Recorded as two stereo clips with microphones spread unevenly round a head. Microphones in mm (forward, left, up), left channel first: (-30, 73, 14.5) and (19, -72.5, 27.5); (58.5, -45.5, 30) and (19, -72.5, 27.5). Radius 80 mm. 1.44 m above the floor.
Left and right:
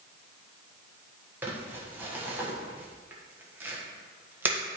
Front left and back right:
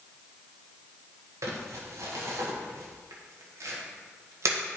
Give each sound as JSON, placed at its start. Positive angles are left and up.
{"t": 1.4, "sound": "crumpling", "azimuth_deg": -150, "distance_m": 1.5}